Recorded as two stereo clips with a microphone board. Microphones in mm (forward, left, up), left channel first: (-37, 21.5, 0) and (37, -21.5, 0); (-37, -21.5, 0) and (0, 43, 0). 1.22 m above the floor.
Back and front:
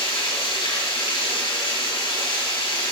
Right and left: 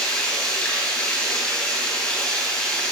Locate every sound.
0.0 s running water: 165° left, 5.5 m